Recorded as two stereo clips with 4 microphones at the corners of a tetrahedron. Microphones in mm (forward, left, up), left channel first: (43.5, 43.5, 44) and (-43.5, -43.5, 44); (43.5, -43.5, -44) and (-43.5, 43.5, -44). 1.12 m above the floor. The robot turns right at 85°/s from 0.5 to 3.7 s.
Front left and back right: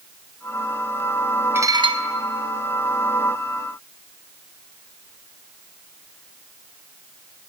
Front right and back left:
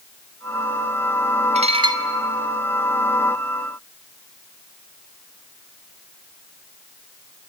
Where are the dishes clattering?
155° left, 1.5 m; by 2.0 s 165° right, 1.5 m.